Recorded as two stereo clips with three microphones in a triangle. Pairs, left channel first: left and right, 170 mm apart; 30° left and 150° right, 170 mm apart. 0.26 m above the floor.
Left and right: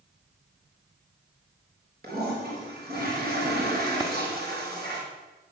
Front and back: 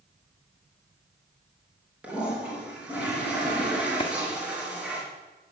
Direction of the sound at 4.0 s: 25° right.